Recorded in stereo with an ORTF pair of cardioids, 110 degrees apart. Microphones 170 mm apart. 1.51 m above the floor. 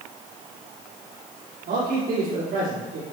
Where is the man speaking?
65° right, 4 m.